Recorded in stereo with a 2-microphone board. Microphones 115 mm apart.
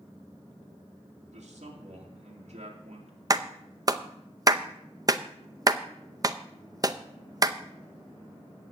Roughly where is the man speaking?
Right.